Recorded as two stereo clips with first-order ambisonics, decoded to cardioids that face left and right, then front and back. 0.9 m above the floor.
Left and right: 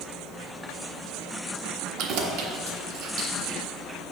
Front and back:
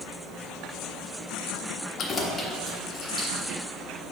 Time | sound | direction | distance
2.0 | keys jangling | 60° right | 0.6 m